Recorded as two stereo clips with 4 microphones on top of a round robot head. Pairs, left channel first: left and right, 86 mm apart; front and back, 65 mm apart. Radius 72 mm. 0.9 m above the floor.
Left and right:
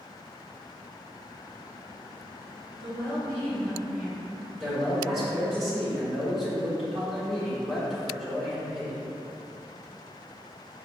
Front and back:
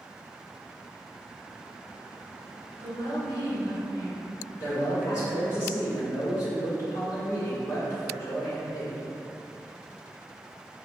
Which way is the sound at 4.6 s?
5° right.